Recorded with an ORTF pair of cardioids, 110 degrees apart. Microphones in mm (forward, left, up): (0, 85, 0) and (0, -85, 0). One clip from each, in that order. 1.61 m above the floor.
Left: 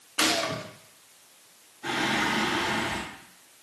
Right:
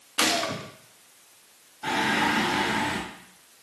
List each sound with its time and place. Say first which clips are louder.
0.2 s a gunshot: right 1 dB; 5° right, 0.8 m
1.8 s singing: right 2 dB; 30° right, 2.5 m